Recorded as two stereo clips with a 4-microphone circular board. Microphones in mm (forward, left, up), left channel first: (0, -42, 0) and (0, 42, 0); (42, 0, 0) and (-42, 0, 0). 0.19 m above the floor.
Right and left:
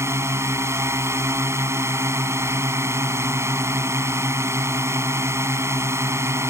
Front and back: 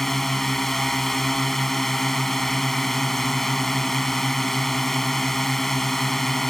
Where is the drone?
85° left.